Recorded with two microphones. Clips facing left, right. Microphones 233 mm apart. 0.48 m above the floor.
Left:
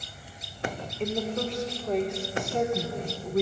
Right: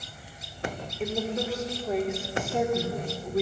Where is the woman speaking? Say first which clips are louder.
Even; 5° right (ahead or behind), 1.7 m; by 3.4 s centre (ahead or behind), 1.4 m.